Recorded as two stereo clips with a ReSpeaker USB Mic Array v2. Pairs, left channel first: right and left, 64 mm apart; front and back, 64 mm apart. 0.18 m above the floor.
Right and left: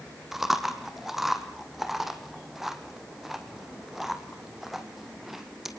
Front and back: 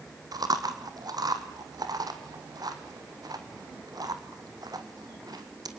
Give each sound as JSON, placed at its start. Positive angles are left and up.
{"t": 0.3, "sound": "chewing", "azimuth_deg": 175, "distance_m": 2.5}